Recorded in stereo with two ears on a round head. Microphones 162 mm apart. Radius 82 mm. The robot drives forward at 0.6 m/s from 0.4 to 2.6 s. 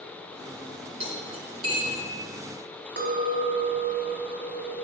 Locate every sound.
1.0 s cutlery clinking: 35° right (ahead or behind), 2.5 m; by 2.0 s 30° right (ahead or behind), 3 m
3.0 s a clink: 65° right (ahead or behind), 1.0 m